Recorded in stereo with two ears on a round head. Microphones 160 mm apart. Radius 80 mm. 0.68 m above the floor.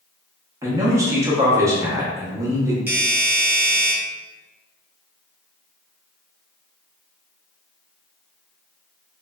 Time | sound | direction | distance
0.6 | a man speaking | 15° right (ahead or behind) | 0.8 m
2.9 | a doorbell | 10° right (ahead or behind) | 0.9 m